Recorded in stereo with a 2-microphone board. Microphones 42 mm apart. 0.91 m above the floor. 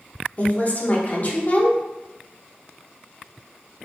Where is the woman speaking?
40° left (ahead or behind), 0.8 m.